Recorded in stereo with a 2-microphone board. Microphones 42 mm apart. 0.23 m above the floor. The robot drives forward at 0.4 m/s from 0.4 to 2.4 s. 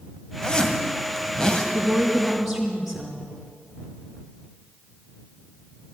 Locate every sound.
0.4 s a zipper: 20° left (ahead or behind), 1.5 m
1.7 s a woman speaking: 5° right (ahead or behind), 3 m